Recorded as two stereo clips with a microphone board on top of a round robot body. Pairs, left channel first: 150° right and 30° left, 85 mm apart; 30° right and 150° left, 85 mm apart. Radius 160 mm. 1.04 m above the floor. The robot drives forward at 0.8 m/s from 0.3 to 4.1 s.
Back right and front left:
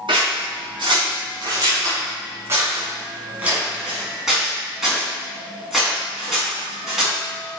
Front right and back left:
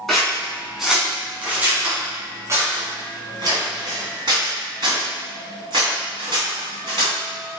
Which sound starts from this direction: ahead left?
Scissors, at 0.1 s.